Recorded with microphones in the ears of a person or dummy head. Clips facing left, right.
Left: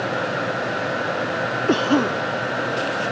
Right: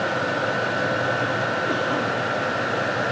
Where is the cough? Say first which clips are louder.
Left 6 dB; 60° left (ahead or behind).